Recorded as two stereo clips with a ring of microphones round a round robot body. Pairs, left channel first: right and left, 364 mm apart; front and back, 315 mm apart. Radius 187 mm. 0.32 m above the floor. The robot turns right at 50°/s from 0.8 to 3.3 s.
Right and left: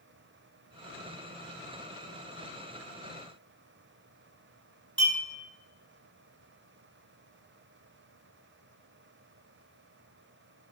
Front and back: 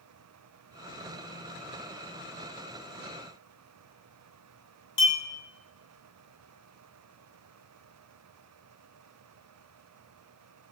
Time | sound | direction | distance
5.0 | a clink | 15° left | 1.6 m